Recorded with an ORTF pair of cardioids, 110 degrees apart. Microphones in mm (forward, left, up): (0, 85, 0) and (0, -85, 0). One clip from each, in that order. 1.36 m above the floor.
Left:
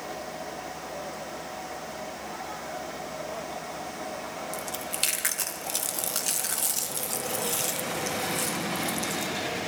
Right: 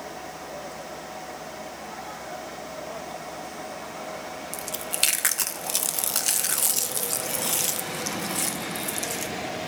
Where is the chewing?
25° right, 1.5 m.